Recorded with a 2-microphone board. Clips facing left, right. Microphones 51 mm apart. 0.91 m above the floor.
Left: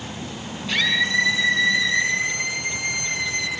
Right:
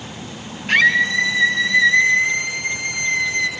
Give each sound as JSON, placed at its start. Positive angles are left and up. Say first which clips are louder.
{"t": 0.7, "sound": "a scream", "louder": "right 7 dB", "side_deg": -50, "distance_m": 9.0}